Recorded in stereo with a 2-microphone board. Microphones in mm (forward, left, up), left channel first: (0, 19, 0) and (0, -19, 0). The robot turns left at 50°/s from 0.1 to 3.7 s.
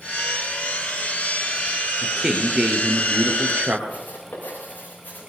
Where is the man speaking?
10° right, 2.5 m; by 3.8 s 95° right, 2.5 m.